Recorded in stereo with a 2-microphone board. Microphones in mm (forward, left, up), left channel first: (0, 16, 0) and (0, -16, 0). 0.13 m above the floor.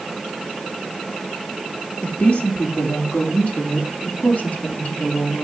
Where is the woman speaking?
55° left (ahead or behind), 3 m; by 5.5 s 60° left (ahead or behind), 5 m.